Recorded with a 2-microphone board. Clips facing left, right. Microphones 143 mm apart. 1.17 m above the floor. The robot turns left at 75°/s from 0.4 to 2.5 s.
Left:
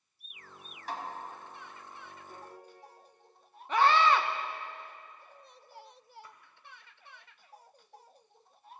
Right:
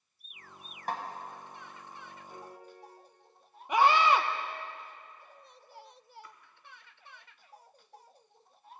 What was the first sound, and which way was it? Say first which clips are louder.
A snare drum: right 3 dB; 50° right (ahead or behind).